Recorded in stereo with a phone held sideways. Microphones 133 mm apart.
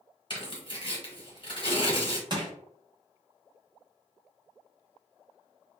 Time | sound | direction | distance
0.3 | tearing paper | 40° left (ahead or behind) | 1.6 m
2.3 | crushing | 35° right (ahead or behind) | 1.0 m